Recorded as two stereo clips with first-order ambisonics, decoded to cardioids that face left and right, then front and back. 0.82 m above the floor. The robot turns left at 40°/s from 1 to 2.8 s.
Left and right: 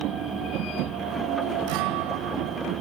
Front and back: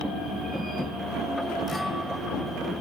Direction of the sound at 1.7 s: 80° right.